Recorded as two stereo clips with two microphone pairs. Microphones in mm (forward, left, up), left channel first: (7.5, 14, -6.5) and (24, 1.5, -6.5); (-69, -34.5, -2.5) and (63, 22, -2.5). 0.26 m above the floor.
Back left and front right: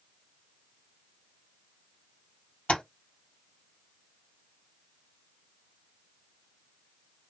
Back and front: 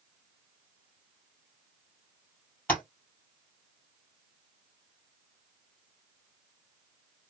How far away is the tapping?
About 2.0 m.